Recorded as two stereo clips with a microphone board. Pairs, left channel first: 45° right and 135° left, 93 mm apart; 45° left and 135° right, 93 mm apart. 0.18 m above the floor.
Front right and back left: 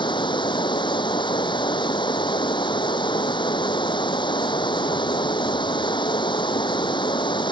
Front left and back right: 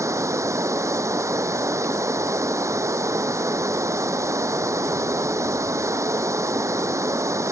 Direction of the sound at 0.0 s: 75° right.